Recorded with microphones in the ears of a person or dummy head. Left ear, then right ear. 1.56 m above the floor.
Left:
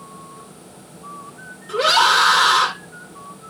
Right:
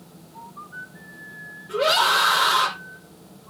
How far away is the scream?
About 6.5 m.